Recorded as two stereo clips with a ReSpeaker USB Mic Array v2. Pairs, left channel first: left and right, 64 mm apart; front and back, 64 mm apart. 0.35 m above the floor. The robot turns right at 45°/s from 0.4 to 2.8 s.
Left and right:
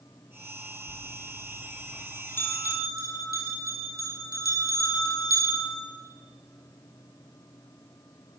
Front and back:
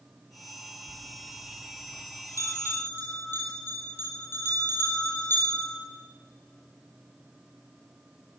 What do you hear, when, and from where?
0.9 s a bell: 30° right, 6.5 m; by 5.8 s 55° left, 6.5 m